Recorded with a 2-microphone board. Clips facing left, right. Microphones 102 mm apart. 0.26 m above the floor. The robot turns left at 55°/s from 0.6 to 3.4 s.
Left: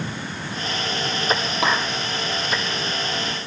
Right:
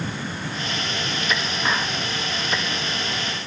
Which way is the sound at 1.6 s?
75° left (ahead or behind).